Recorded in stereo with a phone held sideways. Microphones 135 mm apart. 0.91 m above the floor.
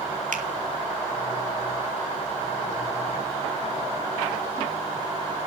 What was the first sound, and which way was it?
A finger snap, 70° right (ahead or behind).